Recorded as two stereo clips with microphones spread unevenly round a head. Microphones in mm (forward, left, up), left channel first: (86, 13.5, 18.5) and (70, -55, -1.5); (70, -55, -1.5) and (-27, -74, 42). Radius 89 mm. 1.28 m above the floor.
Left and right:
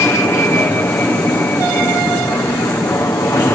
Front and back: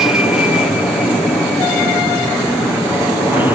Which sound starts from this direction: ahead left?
An aircraft, at 0.0 s.